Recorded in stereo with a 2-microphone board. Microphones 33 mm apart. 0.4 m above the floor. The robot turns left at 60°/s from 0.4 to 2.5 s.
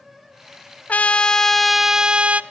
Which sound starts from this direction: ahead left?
A trumpet, at 0.9 s.